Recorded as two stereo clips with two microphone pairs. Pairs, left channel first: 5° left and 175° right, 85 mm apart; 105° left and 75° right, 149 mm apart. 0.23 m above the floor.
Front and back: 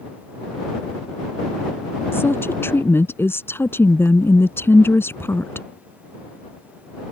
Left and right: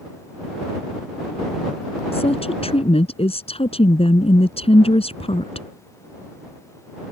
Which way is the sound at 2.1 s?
65° left.